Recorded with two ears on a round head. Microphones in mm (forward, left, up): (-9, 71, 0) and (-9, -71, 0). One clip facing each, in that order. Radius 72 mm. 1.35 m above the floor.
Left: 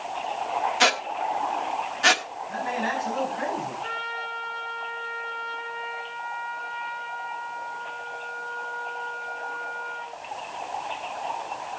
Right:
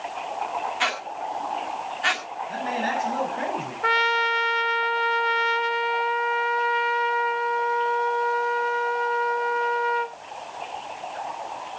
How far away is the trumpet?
About 0.7 m.